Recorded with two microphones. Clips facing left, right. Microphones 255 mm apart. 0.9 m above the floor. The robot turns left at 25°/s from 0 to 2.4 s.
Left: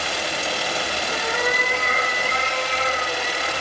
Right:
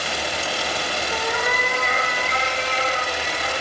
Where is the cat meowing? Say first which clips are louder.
Left 1 dB; 165° left, 3 m; by 3.5 s 135° left, 3 m.